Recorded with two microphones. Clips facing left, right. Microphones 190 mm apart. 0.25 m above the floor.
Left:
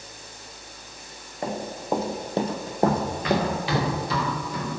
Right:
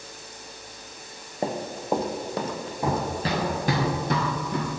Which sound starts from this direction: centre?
Running footsteps, at 2.8 s.